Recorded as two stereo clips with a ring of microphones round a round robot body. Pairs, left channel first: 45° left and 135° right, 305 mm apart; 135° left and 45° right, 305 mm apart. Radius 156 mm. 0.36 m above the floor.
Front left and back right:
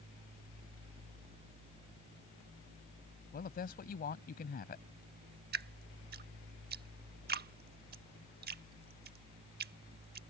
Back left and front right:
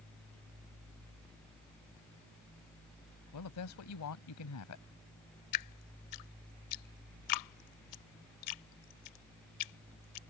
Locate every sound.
3.3 s a woman speaking: 105° left
5.5 s dripping: 165° left